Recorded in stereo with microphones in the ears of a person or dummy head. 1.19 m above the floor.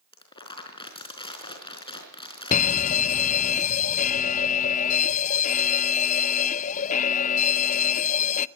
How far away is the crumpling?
About 4.5 m.